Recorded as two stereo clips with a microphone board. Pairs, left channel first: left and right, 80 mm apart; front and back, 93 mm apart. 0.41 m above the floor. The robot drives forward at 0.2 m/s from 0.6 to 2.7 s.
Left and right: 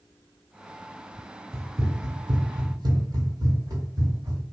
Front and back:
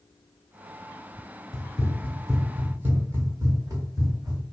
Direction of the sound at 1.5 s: 35° right.